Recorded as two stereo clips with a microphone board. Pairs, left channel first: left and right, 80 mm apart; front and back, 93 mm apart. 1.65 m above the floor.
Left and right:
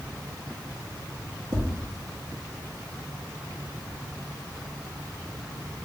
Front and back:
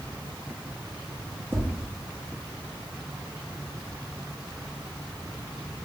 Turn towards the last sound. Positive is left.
turn(degrees=-120)